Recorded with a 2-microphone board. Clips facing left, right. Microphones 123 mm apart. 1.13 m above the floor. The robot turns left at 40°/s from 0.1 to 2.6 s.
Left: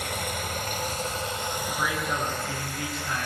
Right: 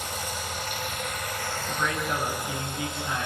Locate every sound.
0.0 s running water: 75° left, 2.5 m; by 3.3 s 25° right, 2.5 m
1.7 s a man speaking: 20° left, 9.5 m; by 3.3 s 15° right, 9.5 m